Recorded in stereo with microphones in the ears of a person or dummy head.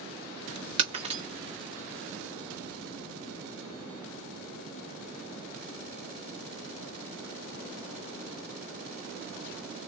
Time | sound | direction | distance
0.8 | breaking glass | 35° right (ahead or behind) | 1.0 m